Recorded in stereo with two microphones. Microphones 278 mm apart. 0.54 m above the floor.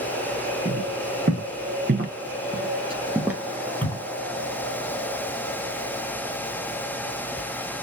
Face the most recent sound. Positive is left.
turn(degrees=10)  # may be behind; listen again after turning